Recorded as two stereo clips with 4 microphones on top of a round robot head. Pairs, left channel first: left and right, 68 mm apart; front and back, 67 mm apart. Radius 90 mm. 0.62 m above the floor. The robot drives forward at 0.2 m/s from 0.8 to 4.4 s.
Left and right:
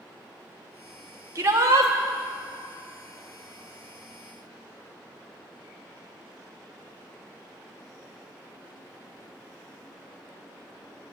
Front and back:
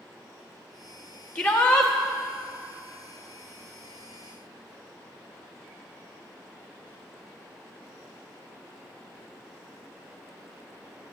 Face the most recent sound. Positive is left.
turn(degrees=-105)